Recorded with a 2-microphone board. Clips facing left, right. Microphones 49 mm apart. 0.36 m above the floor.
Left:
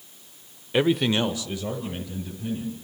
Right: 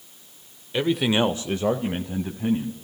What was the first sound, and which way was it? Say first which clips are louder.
A man speaking: even; 20° left (ahead or behind).